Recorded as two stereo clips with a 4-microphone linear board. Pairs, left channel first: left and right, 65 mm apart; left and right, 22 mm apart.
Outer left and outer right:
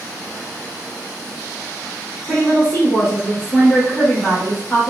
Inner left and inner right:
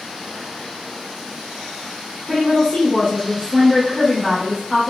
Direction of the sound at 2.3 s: 30° left (ahead or behind).